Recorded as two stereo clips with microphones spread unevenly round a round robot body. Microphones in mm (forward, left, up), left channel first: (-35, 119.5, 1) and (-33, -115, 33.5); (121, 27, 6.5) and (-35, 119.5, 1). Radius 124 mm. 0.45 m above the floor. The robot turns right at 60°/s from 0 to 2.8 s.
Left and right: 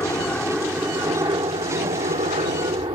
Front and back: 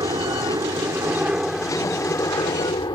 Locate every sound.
0.0 s a helicopter: 150° left; by 3.0 s 50° right